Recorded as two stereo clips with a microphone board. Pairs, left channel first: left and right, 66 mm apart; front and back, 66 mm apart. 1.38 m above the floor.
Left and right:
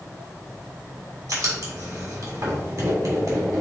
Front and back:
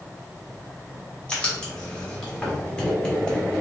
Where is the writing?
75° right, 1.7 m.